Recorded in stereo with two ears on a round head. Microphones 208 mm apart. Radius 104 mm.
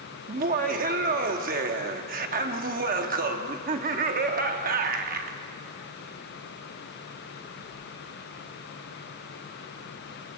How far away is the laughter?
About 0.9 m.